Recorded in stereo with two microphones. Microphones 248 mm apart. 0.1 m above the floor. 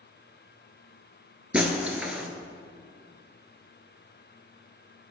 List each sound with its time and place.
1.5 s breaking glass: 5° right (ahead or behind), 0.9 m